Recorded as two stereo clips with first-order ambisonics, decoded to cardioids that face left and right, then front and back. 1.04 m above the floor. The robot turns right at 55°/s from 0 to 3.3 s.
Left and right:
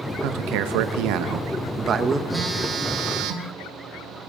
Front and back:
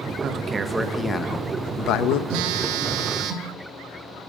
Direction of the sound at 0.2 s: 120° right.